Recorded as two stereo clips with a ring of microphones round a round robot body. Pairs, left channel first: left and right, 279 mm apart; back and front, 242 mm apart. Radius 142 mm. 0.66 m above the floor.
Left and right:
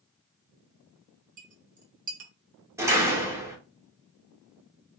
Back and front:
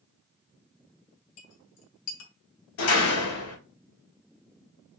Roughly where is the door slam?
Behind.